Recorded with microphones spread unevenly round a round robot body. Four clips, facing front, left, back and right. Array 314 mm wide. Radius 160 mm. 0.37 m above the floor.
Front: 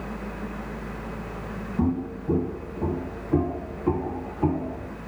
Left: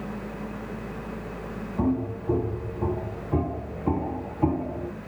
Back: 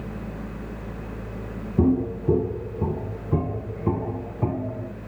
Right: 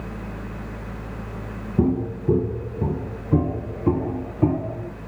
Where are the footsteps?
140° right, 0.9 m; by 4.9 s 115° right, 2.5 m.